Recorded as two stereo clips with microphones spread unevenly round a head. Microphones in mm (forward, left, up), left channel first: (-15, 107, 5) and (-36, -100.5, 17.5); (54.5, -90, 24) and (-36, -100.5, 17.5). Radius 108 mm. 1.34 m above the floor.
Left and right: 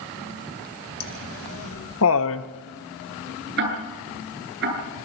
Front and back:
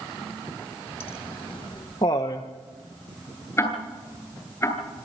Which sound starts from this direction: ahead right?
Ticking, at 3.6 s.